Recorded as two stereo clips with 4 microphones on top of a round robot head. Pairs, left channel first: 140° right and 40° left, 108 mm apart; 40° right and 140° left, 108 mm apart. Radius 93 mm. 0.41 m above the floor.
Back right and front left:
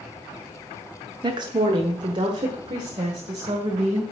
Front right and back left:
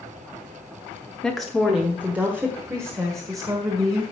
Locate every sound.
1.2 s a woman speaking: 45° left, 1.1 m; by 4.0 s 85° left, 2 m